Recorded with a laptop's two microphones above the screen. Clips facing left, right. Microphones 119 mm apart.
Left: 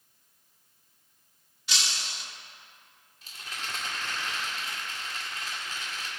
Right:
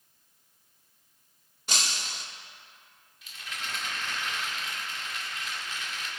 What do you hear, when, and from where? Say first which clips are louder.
1.7 s breaking glass: right 2 dB; 45° right (ahead or behind), 1.0 m
3.2 s a rattle: even; 40° left (ahead or behind), 2 m